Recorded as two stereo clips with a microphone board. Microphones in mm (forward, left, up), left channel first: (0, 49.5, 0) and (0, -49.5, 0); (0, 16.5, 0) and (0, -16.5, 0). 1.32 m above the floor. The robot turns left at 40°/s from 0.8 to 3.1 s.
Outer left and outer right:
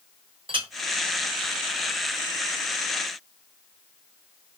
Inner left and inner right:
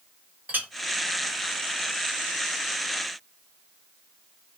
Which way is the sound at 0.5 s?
60° right (ahead or behind).